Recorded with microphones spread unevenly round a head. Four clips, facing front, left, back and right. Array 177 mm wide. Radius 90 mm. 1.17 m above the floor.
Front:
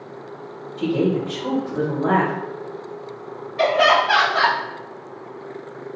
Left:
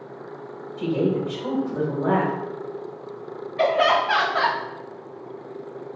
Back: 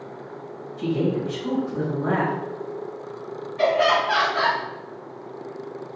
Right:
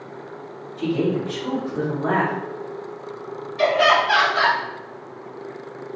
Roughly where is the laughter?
Ahead left.